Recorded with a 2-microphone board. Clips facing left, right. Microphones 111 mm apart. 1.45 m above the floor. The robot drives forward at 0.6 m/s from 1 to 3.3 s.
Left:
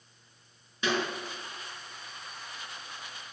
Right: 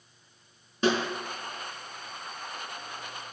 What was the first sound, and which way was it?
A snare drum, 40° right (ahead or behind).